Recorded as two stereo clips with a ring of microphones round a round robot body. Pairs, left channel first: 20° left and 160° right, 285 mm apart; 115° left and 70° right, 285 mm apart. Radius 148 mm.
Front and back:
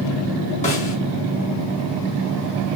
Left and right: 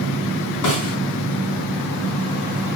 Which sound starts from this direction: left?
A snare drum, at 0.6 s.